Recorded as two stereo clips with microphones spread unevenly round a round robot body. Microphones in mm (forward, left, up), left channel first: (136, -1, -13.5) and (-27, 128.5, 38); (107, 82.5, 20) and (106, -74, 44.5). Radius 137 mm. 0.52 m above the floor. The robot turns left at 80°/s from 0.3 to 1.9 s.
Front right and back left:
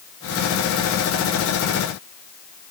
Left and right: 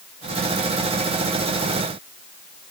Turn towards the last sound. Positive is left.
No sound to turn to.